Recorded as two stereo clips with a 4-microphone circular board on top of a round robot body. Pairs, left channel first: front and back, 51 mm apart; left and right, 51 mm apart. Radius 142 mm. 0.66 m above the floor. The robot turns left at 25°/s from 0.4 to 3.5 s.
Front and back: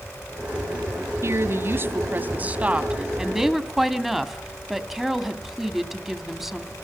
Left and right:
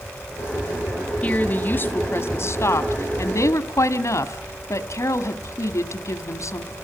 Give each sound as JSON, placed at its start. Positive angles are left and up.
{"t": 1.2, "sound": "a woman speaking", "azimuth_deg": 150, "distance_m": 2.0}